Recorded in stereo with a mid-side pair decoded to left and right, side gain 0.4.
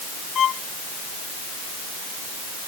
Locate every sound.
0.3 s a violin: 60° left